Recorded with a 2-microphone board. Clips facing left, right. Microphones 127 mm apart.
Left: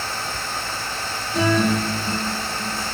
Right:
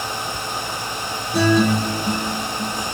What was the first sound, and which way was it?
A guitar, 80° right.